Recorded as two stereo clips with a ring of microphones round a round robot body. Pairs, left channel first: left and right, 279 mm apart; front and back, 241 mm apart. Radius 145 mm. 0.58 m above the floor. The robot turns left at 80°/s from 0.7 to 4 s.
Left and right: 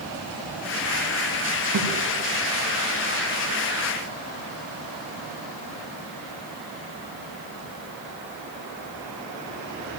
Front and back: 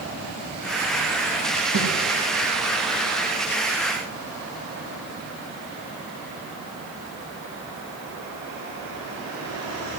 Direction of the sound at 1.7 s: 135° right.